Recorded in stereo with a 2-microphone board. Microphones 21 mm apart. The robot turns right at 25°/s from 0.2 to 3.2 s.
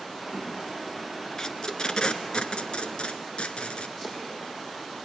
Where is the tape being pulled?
30° left (ahead or behind), 1.2 m; by 3.9 s 60° left (ahead or behind), 1.2 m.